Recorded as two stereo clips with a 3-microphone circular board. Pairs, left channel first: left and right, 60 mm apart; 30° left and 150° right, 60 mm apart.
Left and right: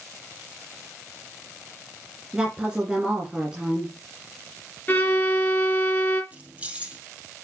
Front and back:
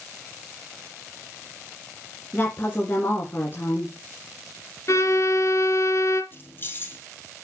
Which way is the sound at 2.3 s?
15° right.